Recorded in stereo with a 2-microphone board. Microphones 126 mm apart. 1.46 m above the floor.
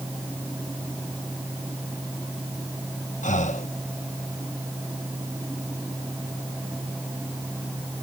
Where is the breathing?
80° left.